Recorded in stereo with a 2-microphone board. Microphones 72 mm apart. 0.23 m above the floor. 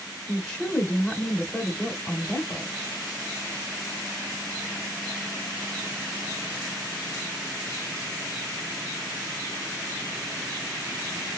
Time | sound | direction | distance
0.3 | a woman speaking | 10° left (ahead or behind) | 1.2 m